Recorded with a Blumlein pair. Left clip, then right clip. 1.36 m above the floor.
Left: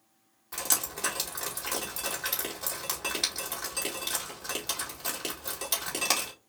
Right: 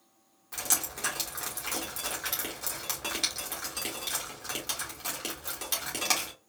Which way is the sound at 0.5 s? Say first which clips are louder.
Even; straight ahead.